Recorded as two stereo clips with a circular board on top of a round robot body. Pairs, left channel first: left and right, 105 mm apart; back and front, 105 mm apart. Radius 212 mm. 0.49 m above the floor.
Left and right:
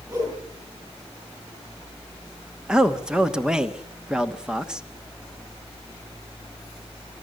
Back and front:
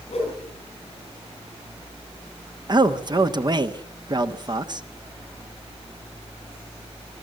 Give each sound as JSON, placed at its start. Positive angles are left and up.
{"t": 0.1, "sound": "a whoosh", "azimuth_deg": -145, "distance_m": 9.5}
{"t": 2.7, "sound": "a man speaking", "azimuth_deg": -10, "distance_m": 1.5}